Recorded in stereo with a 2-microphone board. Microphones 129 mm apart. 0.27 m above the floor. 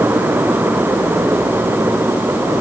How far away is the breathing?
I don't hear breathing.